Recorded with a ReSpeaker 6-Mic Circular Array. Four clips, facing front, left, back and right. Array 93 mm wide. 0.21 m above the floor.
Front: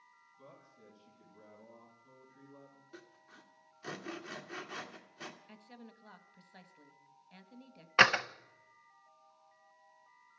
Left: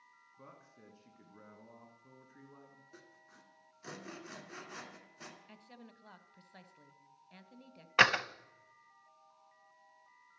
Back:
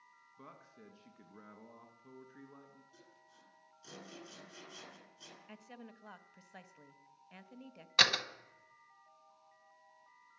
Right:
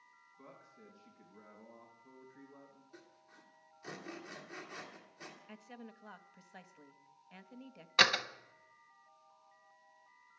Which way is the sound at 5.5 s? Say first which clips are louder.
Right 4 dB, back 1 dB; 145° right.